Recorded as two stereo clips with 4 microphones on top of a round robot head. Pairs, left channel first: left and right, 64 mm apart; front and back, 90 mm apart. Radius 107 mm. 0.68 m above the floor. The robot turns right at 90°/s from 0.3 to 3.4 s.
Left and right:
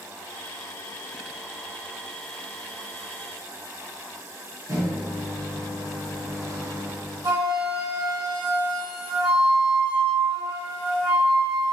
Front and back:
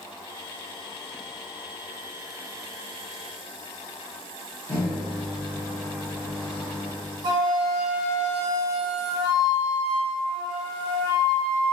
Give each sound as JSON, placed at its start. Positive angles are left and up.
{"t": 4.7, "sound": "a microwave", "azimuth_deg": -70, "distance_m": 1.5}
{"t": 7.2, "sound": "a flute", "azimuth_deg": -135, "distance_m": 1.1}